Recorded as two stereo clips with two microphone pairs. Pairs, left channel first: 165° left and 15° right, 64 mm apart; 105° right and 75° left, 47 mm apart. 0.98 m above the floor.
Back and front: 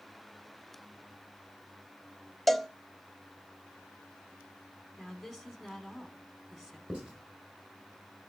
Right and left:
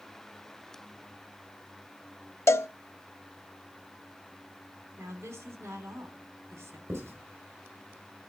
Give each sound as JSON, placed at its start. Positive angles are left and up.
{"t": 2.5, "sound": "a cowbell", "azimuth_deg": -105, "distance_m": 0.5}
{"t": 5.0, "sound": "a woman speaking", "azimuth_deg": 70, "distance_m": 2.5}
{"t": 6.9, "sound": "writing", "azimuth_deg": 60, "distance_m": 4.5}